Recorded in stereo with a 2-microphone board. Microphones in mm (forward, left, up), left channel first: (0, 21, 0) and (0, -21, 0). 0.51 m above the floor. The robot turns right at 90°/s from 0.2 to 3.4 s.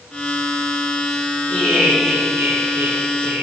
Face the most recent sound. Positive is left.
turn(degrees=-35)